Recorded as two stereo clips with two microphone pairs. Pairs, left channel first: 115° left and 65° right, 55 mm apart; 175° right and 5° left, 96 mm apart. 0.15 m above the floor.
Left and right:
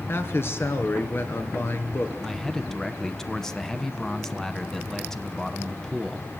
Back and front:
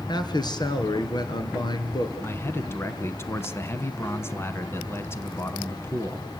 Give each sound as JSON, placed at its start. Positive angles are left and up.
{"t": 0.1, "sound": "a man speaking", "azimuth_deg": 155, "distance_m": 2.5}
{"t": 2.2, "sound": "a man speaking", "azimuth_deg": -170, "distance_m": 1.2}